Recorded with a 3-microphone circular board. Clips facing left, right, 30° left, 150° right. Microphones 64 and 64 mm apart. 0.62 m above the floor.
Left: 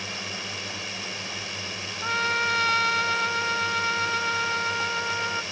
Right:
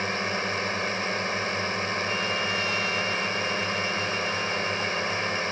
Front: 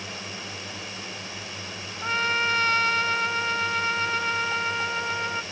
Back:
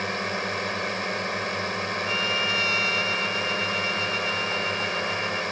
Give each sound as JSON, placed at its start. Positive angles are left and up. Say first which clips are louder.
{"t": 0.0, "sound": "a drone", "louder": "right 7 dB, back 9 dB", "azimuth_deg": -130}
{"t": 2.0, "sound": "a trumpet", "louder": "left 2 dB, front 5 dB", "azimuth_deg": 75}